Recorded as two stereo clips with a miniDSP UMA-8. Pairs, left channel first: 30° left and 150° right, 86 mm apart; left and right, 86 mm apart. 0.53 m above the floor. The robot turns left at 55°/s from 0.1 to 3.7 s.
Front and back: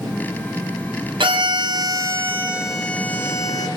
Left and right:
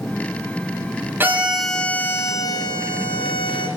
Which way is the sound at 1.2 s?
155° right.